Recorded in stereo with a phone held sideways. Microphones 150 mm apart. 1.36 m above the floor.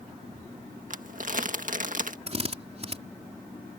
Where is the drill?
45° right (ahead or behind).